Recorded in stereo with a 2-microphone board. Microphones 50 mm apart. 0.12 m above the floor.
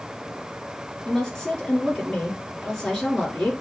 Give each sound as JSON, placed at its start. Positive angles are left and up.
{"t": 1.1, "sound": "a woman speaking", "side_deg": 10, "distance_m": 2.0}